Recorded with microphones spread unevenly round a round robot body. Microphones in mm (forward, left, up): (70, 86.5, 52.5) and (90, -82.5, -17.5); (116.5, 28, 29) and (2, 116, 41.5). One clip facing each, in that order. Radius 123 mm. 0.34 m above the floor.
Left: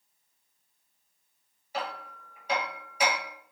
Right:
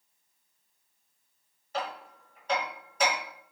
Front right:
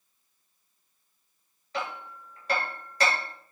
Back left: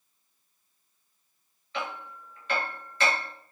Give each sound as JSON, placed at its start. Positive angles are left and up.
{"t": 1.7, "sound": "hammering", "azimuth_deg": 10, "distance_m": 6.5}